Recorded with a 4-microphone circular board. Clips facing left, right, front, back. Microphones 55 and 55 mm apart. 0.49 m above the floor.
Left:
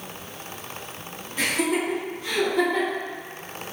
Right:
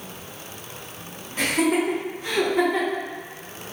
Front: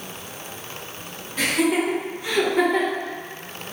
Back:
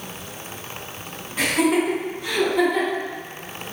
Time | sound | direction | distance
1.4 | laughter | 100° right | 1.7 m